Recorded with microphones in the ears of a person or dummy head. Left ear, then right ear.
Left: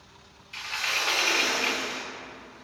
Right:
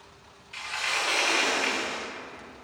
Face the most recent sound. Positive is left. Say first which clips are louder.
# left 1 dB
turn(degrees=5)  # may be behind; listen again after turning